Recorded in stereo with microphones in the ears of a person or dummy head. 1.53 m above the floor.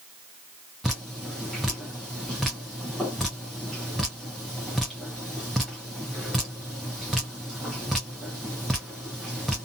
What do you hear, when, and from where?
0.8 s dripping: centre (ahead or behind), 0.6 m